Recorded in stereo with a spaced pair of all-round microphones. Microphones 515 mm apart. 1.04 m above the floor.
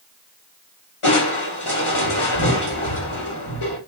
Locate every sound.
1.0 s crushing: 70° left (ahead or behind), 1.6 m